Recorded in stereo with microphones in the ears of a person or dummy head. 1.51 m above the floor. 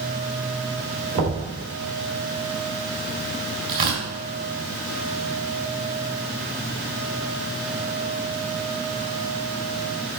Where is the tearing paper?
45° right (ahead or behind), 4 m.